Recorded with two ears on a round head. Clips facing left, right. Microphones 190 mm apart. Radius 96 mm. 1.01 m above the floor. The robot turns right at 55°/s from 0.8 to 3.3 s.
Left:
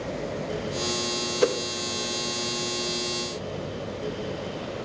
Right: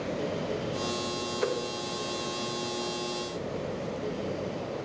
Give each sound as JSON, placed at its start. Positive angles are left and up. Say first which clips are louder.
{"t": 1.4, "sound": "a whoosh", "louder": "left 7 dB", "side_deg": 55, "distance_m": 0.5}